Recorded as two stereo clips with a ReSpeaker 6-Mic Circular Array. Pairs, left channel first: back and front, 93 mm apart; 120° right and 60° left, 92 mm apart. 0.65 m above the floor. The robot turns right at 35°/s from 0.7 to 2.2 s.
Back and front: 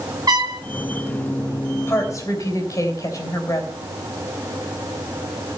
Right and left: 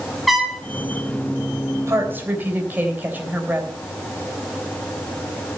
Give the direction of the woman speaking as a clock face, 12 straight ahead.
8 o'clock.